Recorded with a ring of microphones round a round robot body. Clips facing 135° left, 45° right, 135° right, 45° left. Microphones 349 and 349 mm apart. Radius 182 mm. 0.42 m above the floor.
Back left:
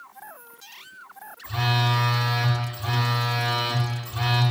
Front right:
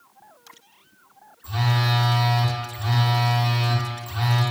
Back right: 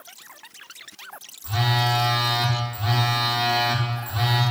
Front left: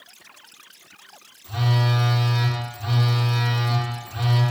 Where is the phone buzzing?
115° right, 1.1 m.